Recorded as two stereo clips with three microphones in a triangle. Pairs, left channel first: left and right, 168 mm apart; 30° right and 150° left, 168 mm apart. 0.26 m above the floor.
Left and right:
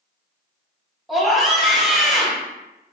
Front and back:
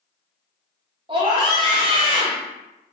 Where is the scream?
Straight behind, 1.3 m.